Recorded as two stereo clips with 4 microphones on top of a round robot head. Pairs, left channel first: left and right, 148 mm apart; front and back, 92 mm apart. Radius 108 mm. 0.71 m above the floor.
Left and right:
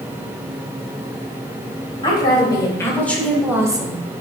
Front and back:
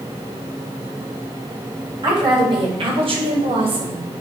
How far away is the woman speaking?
About 3.5 m.